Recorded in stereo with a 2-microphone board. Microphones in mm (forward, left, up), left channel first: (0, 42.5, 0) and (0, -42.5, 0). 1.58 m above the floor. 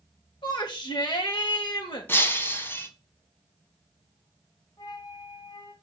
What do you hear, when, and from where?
0.4 s a shout: 65° left (ahead or behind), 2.5 m
2.1 s breaking glass: 25° left (ahead or behind), 1.6 m
4.8 s a flute: 50° left (ahead or behind), 2.5 m